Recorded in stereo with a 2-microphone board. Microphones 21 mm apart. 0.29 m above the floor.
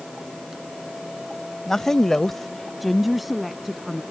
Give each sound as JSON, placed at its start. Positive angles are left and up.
{"t": 1.7, "sound": "a woman speaking", "side_deg": 15}